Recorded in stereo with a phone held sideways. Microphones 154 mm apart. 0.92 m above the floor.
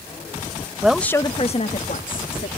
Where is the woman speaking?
10° right (ahead or behind); by 2.5 s 70° left (ahead or behind).